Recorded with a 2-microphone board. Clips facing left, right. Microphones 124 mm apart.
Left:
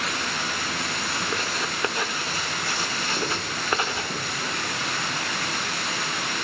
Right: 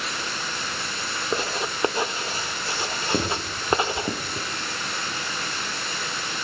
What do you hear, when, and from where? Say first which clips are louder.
0.0 s running water: left 2 dB; 75° left (ahead or behind), 3.5 m
1.3 s writing: right 2 dB; 25° right (ahead or behind), 0.7 m
3.1 s writing: right 5 dB; 70° right (ahead or behind), 8 m